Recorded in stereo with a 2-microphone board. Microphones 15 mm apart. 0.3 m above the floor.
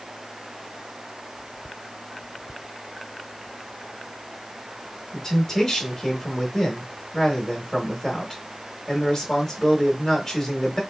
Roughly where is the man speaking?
Centre.